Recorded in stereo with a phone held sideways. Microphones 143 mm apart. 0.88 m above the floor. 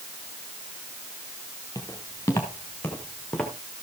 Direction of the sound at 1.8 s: 25° left (ahead or behind).